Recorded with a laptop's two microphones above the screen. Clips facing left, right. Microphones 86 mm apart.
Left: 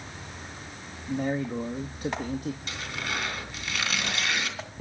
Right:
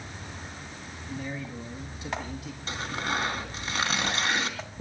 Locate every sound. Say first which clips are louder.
1.1 s a man speaking: left 8 dB; 45° left (ahead or behind), 1.9 m
2.7 s tearing paper: right 3 dB; 35° right (ahead or behind), 3 m